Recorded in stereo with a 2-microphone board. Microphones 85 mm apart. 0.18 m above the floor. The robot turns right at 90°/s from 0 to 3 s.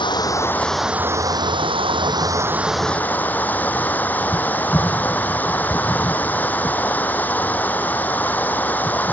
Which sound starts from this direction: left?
Running water, at 0.0 s.